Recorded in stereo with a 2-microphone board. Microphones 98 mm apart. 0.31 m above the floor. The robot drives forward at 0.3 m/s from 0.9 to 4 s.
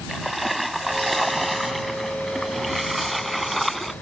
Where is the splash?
Centre (ahead or behind).